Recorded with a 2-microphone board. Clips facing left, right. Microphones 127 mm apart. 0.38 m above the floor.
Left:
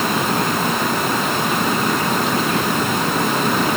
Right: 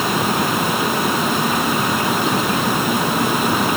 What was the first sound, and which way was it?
Only background noise.